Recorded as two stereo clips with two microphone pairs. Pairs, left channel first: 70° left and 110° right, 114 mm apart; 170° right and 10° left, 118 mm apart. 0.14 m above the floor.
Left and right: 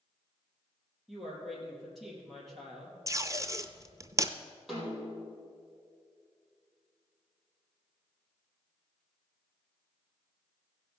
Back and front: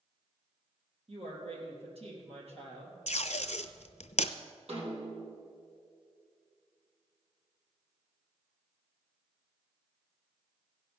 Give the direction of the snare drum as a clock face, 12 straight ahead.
1 o'clock.